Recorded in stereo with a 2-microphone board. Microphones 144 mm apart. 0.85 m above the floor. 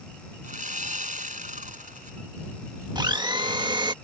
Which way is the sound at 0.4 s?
65° right (ahead or behind).